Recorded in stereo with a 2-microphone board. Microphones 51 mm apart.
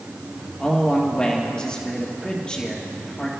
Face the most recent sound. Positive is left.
turn(degrees=15)  # may be behind; listen again after turning